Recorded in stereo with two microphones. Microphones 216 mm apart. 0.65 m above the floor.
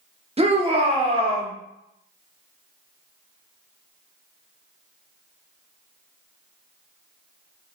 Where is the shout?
30° right (ahead or behind), 0.9 m.